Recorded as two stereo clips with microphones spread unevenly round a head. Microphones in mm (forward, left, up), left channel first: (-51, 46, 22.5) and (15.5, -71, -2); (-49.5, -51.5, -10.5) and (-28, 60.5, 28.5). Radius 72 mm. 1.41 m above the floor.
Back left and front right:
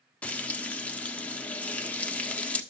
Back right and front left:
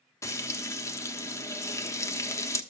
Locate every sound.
0.2 s frying: 175° right, 1.1 m